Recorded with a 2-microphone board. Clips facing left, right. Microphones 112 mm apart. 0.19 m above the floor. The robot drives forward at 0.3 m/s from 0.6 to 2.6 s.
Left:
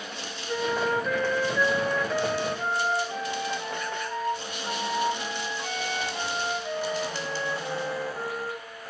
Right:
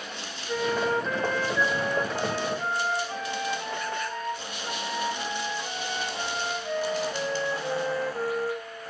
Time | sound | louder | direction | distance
0.5 | a flute | even | 10° left (ahead or behind) | 0.6 m